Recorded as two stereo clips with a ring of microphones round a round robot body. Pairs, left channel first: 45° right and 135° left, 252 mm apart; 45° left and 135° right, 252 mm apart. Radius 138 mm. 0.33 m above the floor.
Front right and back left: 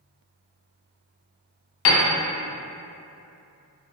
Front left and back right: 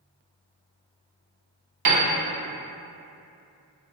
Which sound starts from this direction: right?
A piano, at 1.9 s.